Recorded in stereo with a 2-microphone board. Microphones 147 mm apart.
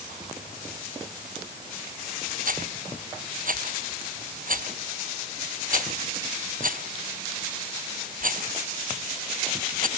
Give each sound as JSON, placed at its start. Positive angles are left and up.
{"t": 2.5, "sound": "a rattle", "side_deg": -60}